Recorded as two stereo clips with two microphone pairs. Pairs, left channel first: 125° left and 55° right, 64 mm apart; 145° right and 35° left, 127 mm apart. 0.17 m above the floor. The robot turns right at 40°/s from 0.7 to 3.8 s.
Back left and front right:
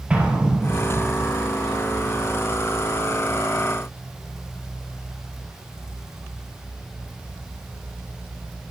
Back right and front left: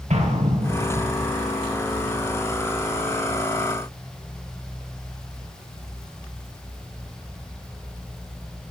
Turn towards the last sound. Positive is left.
turn(degrees=140)